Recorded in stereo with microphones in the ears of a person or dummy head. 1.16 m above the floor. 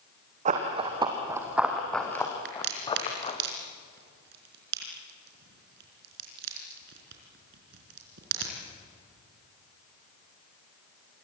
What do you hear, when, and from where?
0.5 s running footsteps: 40° right (ahead or behind), 2.5 m; by 3.4 s 30° left (ahead or behind), 3.5 m
2.5 s a crack: 65° right (ahead or behind), 4.5 m